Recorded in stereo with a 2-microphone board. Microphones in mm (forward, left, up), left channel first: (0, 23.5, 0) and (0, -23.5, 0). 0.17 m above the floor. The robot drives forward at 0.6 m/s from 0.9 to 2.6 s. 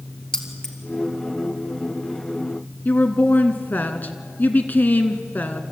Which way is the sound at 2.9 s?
40° left (ahead or behind).